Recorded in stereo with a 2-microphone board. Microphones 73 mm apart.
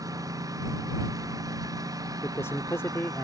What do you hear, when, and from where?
0.0 s a lawn mower: 60° right (ahead or behind); by 3.2 s 65° right (ahead or behind)
2.2 s a man speaking: 45° left (ahead or behind)